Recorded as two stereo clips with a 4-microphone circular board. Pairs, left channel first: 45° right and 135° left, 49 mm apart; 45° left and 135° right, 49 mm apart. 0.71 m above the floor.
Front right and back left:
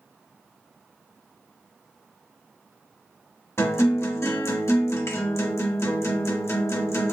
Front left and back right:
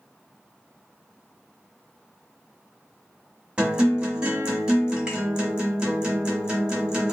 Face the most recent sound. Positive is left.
turn(degrees=-65)